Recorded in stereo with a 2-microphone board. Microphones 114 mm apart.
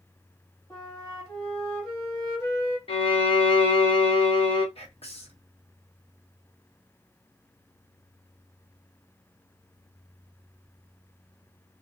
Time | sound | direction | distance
0.7 | a flute | 30° left (ahead or behind) | 1.5 m
2.9 | a violin | 55° left (ahead or behind) | 0.9 m
4.8 | whispering | 60° left (ahead or behind) | 0.9 m